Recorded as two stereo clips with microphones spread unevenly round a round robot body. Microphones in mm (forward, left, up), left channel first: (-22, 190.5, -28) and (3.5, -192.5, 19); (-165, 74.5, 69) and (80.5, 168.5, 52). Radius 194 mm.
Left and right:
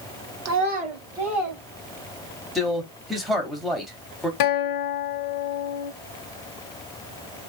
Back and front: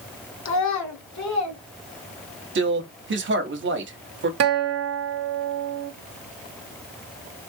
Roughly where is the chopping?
No chopping in this recording.